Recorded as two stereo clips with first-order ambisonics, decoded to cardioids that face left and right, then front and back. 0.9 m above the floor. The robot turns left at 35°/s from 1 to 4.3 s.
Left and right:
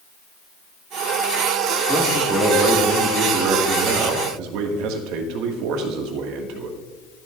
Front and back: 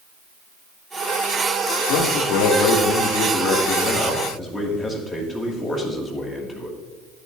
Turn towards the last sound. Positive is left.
turn(degrees=-85)